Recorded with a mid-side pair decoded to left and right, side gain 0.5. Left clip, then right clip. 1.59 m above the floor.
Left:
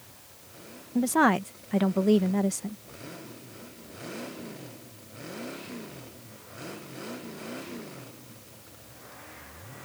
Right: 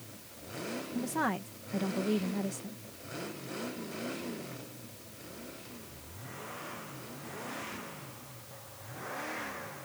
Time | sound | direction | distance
0.9 | a woman speaking | 55° left | ?